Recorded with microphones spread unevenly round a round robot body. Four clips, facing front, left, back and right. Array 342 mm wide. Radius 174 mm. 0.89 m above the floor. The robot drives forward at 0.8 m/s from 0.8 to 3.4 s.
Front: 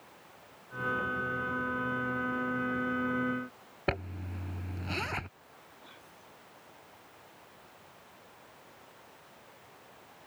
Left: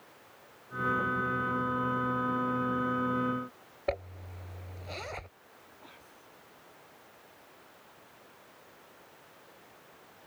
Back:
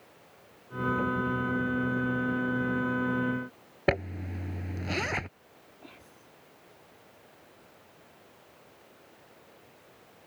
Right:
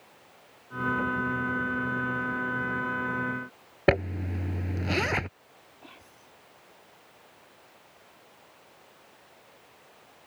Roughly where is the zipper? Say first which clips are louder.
Right 10 dB, back 6 dB; right.